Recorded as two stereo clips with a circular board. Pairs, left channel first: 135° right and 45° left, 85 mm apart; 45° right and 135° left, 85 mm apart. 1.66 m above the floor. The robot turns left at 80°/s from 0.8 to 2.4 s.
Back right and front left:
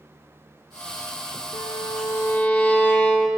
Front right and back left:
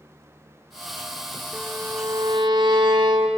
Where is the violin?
140° right, 3 m; by 3.3 s 150° left, 3 m.